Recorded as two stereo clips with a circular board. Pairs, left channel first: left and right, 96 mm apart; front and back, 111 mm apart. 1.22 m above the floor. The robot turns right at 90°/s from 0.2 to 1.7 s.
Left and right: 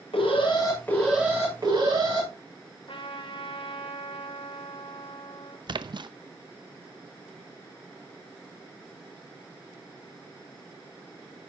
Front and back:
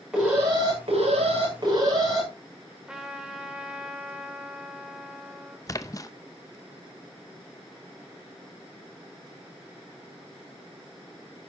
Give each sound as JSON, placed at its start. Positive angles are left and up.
{"t": 0.1, "sound": "an alarm", "azimuth_deg": 100, "distance_m": 6.5}
{"t": 2.9, "sound": "a trumpet", "azimuth_deg": 95, "distance_m": 2.0}
{"t": 5.7, "sound": "a splash", "azimuth_deg": -55, "distance_m": 0.7}